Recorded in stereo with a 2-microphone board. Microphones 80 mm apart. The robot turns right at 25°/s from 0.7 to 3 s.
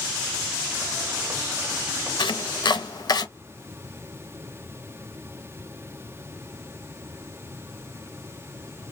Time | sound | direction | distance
2.2 | chopping | 75° left (ahead or behind) | 0.5 m